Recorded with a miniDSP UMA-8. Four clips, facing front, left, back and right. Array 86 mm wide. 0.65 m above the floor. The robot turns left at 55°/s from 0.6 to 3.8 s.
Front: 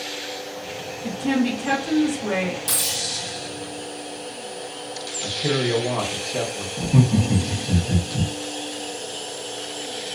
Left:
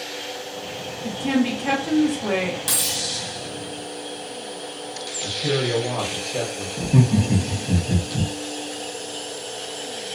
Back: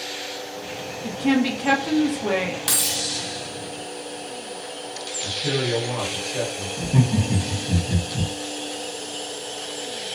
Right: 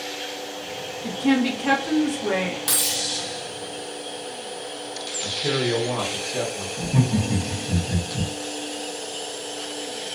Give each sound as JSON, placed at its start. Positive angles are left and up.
{"t": 1.0, "sound": "a woman speaking", "azimuth_deg": -125, "distance_m": 0.7}
{"t": 2.7, "sound": "keys jangling", "azimuth_deg": -170, "distance_m": 0.8}
{"t": 5.2, "sound": "a man speaking", "azimuth_deg": 20, "distance_m": 1.0}
{"t": 6.8, "sound": "laughter", "azimuth_deg": 75, "distance_m": 0.6}